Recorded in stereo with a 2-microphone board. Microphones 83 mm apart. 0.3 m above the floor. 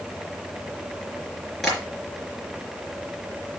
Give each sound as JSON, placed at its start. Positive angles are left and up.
{"t": 1.6, "sound": "tapping", "side_deg": 5, "distance_m": 4.0}